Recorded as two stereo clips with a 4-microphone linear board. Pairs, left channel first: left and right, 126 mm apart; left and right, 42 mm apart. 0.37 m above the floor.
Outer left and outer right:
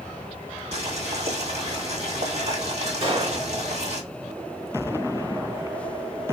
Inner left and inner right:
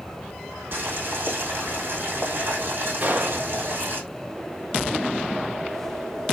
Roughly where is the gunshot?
Right.